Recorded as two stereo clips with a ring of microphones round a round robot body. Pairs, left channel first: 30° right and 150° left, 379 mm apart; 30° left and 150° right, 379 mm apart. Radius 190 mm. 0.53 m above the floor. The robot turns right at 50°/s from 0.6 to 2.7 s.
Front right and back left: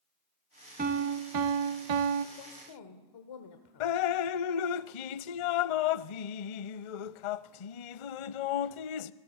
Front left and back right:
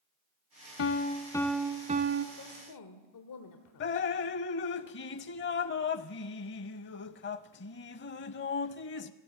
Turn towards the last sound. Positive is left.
turn(degrees=-30)